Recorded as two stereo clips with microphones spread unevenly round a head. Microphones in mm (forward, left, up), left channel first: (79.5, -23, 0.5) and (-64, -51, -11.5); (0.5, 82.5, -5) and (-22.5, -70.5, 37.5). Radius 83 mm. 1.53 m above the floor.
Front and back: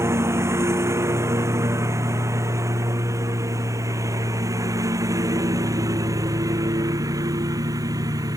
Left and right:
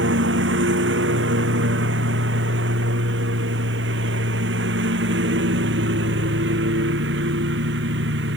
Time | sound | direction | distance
0.0 | a lawn mower | 100° right | ?